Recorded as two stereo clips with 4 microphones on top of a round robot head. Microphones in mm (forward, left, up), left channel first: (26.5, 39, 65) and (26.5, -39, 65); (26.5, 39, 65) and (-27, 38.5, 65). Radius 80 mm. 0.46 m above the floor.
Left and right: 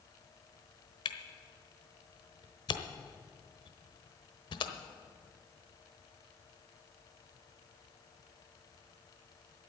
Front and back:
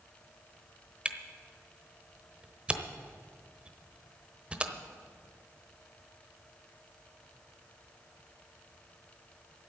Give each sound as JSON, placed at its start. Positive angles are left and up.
{"t": 1.1, "sound": "a camera shutter", "azimuth_deg": 110, "distance_m": 1.1}